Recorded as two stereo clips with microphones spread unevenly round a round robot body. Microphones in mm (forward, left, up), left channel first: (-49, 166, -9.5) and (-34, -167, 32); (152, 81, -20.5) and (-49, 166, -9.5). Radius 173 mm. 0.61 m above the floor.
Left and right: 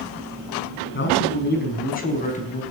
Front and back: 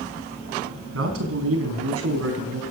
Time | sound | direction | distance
0.9 | a man speaking | 150° left | 5 m